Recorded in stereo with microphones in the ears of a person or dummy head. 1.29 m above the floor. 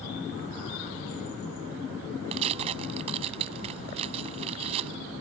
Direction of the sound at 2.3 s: 30° right (ahead or behind).